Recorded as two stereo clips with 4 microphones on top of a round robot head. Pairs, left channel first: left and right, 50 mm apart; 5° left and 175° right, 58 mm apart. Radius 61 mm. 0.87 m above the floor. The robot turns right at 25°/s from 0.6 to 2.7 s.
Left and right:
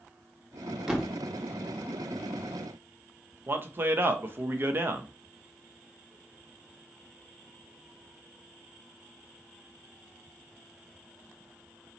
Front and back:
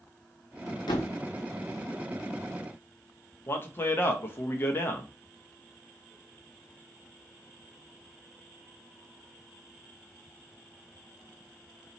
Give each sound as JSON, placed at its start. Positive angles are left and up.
{"t": 0.9, "sound": "a thud", "azimuth_deg": -15, "distance_m": 0.6}
{"t": 3.5, "sound": "a man speaking", "azimuth_deg": -50, "distance_m": 0.7}